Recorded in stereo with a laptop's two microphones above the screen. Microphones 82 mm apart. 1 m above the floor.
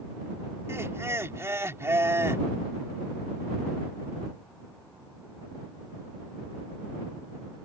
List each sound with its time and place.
0.7 s laughter: 30° right (ahead or behind)